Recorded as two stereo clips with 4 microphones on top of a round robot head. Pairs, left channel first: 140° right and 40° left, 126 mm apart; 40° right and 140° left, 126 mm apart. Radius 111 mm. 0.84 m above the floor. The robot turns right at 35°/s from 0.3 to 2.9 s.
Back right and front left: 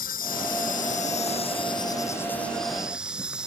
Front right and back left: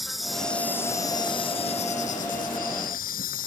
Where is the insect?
130° right; by 3.5 s 40° right.